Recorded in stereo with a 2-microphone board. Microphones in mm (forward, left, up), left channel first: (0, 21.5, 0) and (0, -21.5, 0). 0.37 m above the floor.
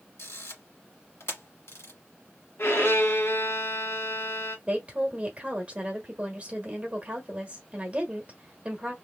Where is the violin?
60° left (ahead or behind), 1.1 m.